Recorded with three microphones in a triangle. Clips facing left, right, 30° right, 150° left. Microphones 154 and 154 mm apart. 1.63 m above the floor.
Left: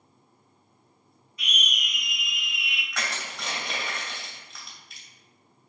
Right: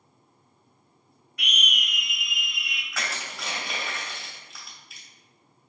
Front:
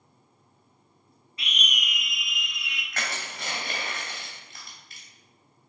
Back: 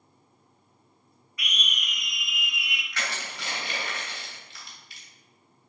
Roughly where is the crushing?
Ahead.